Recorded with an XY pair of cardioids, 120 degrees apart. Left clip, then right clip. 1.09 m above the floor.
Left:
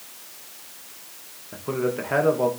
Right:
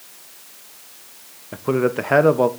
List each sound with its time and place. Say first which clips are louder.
1.5 s a man speaking: right 6 dB; 50° right, 0.6 m